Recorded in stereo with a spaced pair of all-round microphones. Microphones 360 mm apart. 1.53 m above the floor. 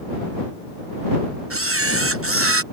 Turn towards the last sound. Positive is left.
turn(degrees=-40)  # may be behind; listen again after turning